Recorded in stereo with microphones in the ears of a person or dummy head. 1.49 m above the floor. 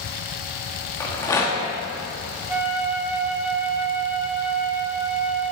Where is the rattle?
15° left (ahead or behind), 1.2 m.